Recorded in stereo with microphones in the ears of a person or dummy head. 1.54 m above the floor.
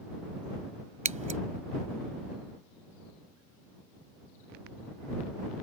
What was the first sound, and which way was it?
Scissors, 30° right (ahead or behind).